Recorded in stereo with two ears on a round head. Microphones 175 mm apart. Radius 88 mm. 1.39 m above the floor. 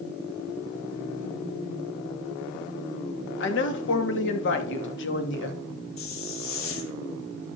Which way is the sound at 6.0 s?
70° left (ahead or behind).